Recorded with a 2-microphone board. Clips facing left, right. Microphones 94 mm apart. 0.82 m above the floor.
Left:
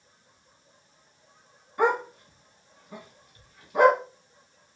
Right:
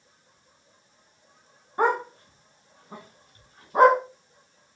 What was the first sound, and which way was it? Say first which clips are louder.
A dog barking: right 1 dB; 35° right (ahead or behind).